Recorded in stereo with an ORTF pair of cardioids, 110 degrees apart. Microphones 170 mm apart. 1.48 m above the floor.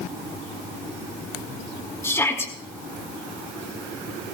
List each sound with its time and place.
2.0 s a shout: 15° left, 2.5 m